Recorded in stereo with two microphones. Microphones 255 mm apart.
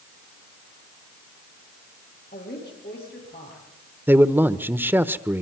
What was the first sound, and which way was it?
A woman speaking, 40° left (ahead or behind).